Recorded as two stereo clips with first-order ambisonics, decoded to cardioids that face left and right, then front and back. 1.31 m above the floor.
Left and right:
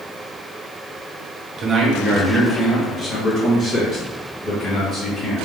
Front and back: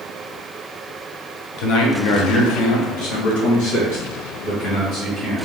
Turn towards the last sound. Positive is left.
turn(degrees=30)